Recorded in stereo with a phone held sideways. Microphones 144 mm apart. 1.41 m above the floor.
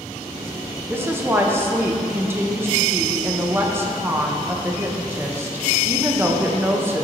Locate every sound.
0.9 s a woman speaking: 15° right (ahead or behind), 1.0 m